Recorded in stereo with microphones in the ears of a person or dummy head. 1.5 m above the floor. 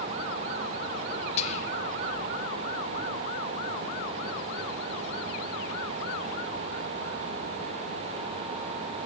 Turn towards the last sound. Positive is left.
turn(degrees=40)  # may be behind; listen again after turning